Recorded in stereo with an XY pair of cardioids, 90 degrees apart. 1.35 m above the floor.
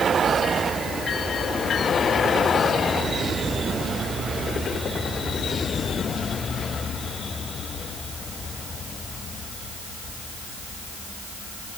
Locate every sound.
Only background noise.